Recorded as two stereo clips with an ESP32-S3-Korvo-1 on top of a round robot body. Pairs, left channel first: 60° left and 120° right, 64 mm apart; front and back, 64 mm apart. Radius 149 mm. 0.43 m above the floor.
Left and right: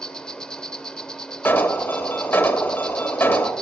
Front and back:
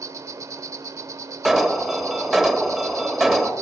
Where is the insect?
140° left, 0.9 m.